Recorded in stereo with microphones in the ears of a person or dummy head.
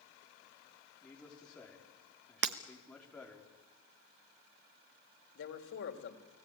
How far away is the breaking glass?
About 0.9 m.